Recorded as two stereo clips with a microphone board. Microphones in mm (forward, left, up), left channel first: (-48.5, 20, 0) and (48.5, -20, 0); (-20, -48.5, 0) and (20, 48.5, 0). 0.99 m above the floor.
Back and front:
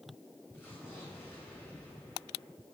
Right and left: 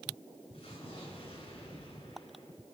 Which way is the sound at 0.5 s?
135° right.